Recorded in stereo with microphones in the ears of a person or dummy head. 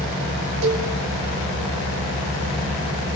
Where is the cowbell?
80° right, 6.5 m.